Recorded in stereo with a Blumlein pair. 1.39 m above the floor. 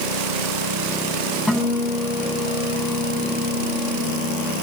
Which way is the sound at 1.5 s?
10° left.